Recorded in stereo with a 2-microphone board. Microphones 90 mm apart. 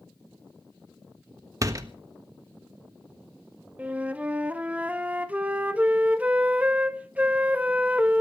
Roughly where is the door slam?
Right.